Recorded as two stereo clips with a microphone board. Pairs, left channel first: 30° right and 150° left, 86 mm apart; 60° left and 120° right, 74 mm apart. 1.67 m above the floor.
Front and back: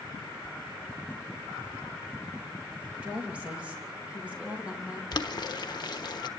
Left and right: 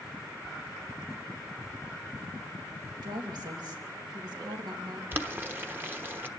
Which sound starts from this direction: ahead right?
Boiling, at 5.1 s.